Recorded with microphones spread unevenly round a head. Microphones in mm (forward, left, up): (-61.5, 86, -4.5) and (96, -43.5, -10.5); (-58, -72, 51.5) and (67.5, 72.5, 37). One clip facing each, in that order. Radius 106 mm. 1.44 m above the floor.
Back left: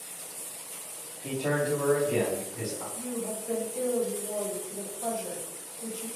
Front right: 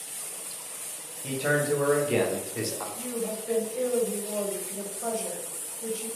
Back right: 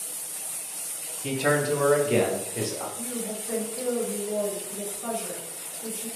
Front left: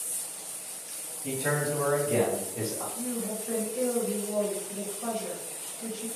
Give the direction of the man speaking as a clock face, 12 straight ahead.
4 o'clock.